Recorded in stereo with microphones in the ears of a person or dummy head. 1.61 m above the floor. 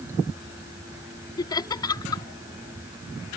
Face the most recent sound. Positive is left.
turn(degrees=25)  # may be behind; listen again after turning